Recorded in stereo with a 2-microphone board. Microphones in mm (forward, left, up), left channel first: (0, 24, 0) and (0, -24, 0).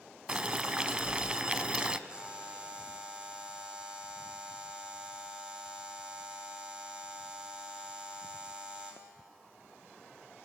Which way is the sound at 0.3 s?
20° right (ahead or behind).